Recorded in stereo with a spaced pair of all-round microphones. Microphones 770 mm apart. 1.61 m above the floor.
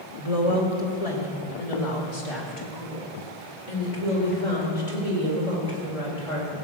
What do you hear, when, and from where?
0.2 s a woman speaking: 45° left (ahead or behind), 2.5 m; by 6.7 s 50° left (ahead or behind), 5.5 m